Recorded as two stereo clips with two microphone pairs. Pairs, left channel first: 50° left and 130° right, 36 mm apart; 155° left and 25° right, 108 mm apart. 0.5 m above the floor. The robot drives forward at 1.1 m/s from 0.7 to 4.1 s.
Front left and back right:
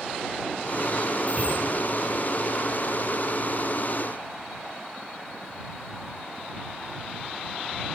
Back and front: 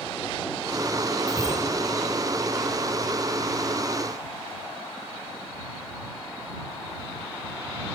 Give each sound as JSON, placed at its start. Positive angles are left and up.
{"t": 1.3, "sound": "a bicycle bell", "azimuth_deg": -80, "distance_m": 6.5}